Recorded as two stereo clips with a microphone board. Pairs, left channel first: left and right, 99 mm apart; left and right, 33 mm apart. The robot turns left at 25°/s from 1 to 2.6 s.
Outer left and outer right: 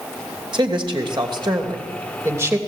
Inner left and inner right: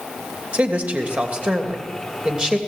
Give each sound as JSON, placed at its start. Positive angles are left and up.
{"t": 0.5, "sound": "a man speaking", "azimuth_deg": -115, "distance_m": 2.5}